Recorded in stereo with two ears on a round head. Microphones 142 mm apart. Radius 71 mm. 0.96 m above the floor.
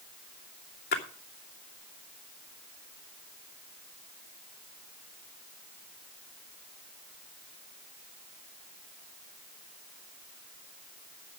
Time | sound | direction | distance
0.9 | a splash | 65° left (ahead or behind) | 2.5 m